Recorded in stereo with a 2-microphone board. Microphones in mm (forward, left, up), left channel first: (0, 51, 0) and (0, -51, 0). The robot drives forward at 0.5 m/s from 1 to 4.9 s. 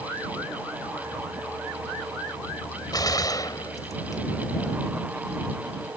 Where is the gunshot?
40° left (ahead or behind); by 4.2 s 35° left (ahead or behind).